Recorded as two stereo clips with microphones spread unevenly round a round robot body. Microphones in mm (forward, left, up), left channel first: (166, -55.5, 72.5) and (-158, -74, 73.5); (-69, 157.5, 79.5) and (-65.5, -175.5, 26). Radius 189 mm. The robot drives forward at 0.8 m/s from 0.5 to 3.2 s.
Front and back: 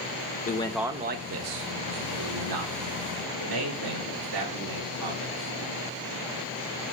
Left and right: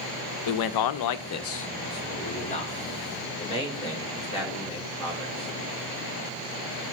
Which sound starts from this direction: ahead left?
A man speaking, at 0.5 s.